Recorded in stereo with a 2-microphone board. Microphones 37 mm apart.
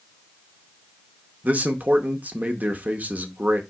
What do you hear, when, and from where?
1.4 s a man speaking: 40° right (ahead or behind), 0.7 m